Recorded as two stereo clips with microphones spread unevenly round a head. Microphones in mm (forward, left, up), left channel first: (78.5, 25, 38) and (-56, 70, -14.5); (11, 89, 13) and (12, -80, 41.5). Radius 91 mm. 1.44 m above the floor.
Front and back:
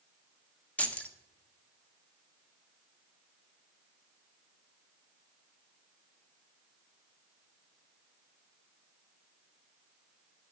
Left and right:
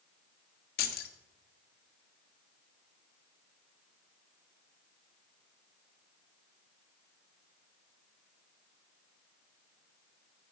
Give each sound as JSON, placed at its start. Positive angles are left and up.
{"t": 0.8, "sound": "keys jangling", "azimuth_deg": 55, "distance_m": 1.2}